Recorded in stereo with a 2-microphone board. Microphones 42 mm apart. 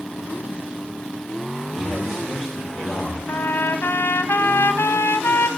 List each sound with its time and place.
1.7 s a man speaking: centre (ahead or behind), 9 m
3.3 s a trumpet: 70° left (ahead or behind), 0.6 m